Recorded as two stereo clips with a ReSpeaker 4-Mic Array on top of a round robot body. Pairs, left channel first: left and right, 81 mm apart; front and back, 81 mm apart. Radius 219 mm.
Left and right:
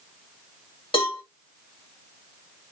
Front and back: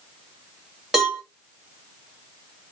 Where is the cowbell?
95° left, 2.5 m.